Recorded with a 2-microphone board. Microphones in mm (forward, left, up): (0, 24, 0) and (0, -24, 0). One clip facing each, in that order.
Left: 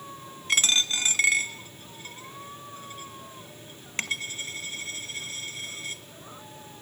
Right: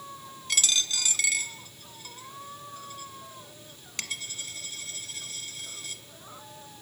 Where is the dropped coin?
35° left (ahead or behind), 0.7 m.